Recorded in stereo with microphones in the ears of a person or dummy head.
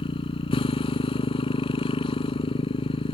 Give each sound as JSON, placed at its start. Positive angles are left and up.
{"t": 0.0, "sound": "a motorcycle", "side_deg": 20}